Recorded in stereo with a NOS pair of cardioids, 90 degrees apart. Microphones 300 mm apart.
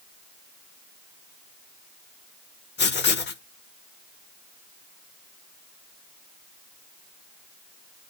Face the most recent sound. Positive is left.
turn(degrees=35)